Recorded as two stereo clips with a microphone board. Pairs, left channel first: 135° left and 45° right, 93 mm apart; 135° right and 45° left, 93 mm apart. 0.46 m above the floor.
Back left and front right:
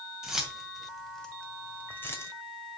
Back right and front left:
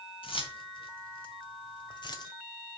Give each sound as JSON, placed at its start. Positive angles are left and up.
{"t": 0.2, "sound": "keys jangling", "azimuth_deg": -130, "distance_m": 2.0}